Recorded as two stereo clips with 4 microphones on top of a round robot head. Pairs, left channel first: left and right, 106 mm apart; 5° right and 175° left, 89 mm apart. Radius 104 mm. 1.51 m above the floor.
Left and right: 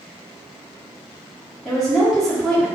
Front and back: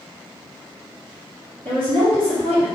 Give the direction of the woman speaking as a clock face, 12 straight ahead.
6 o'clock.